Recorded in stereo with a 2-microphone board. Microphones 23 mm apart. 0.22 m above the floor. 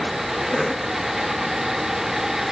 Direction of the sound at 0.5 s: 10° left (ahead or behind).